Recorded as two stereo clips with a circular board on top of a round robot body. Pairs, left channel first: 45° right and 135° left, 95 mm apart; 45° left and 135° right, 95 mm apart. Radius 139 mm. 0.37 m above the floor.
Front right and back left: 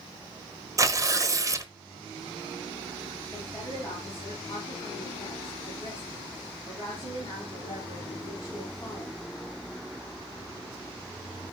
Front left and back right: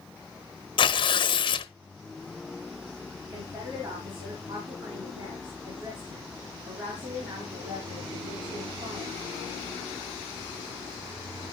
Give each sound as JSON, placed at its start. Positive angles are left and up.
{"t": 0.8, "sound": "tearing paper", "azimuth_deg": 80, "distance_m": 1.0}
{"t": 3.3, "sound": "a woman speaking", "azimuth_deg": -105, "distance_m": 4.0}